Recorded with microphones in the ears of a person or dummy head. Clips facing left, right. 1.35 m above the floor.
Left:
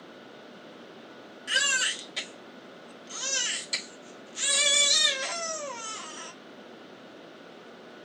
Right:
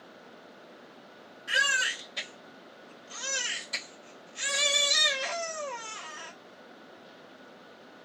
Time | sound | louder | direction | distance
1.5 | a baby crying | right 1 dB | 40° left (ahead or behind) | 1.4 m